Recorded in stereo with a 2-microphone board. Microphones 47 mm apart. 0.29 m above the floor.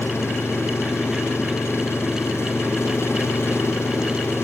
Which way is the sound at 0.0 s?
65° left (ahead or behind).